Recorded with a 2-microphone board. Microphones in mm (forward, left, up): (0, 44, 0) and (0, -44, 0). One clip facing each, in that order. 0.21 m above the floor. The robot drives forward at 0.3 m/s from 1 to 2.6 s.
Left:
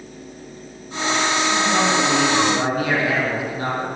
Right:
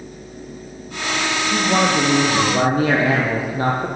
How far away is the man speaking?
About 6.5 m.